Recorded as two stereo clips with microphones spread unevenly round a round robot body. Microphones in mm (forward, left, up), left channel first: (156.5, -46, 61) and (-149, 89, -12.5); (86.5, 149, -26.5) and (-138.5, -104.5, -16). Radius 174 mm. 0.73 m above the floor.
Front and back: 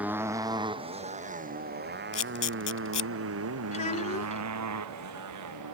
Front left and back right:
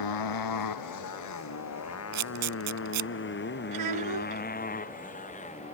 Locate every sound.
0.0 s a motorcycle: 70° left; by 5.8 s 120° left
2.1 s a camera shutter: 95° right
3.7 s a child speaking: 95° right